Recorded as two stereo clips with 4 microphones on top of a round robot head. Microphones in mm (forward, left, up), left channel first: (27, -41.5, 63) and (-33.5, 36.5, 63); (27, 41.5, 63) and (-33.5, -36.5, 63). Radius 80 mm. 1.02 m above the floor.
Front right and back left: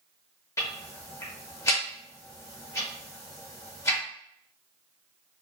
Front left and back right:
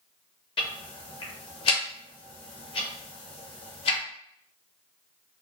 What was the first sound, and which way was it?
Ticking, 10° left.